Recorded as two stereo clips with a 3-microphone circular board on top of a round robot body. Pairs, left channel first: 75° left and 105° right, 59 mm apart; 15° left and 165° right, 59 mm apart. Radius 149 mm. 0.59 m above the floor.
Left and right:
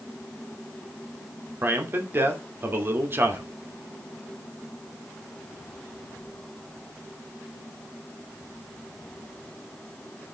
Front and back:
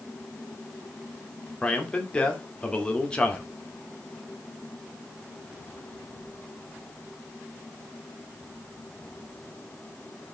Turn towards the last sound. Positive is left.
turn(degrees=-55)